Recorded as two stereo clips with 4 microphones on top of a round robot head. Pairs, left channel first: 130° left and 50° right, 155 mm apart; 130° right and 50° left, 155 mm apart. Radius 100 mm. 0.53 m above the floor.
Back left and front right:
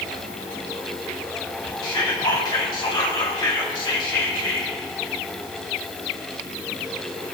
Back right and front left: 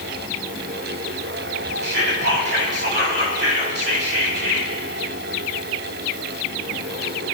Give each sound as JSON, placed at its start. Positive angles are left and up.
{"t": 1.8, "sound": "whispering", "azimuth_deg": 65, "distance_m": 3.5}